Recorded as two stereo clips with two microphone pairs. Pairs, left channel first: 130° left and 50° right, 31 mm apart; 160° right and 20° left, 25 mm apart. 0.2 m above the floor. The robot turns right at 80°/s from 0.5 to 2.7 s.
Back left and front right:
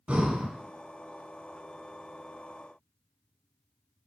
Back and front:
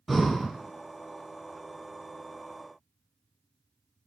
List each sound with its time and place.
0.1 s breathing: 75° right, 0.7 m